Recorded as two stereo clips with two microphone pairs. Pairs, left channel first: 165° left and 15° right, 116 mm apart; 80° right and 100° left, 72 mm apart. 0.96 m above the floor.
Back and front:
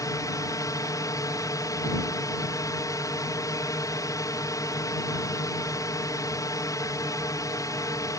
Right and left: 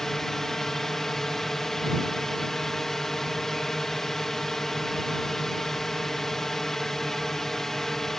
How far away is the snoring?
I don't hear snoring.